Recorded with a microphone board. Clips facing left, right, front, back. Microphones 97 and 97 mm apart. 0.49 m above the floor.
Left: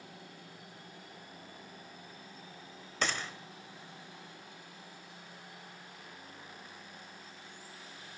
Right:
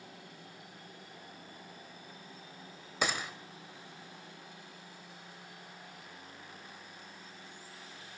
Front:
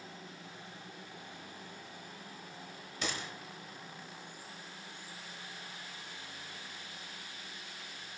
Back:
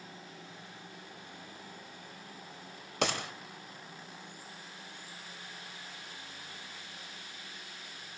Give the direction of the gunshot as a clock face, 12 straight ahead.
6 o'clock.